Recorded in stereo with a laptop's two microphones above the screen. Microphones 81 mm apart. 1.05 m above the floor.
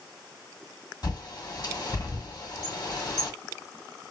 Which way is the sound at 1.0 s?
50° left (ahead or behind).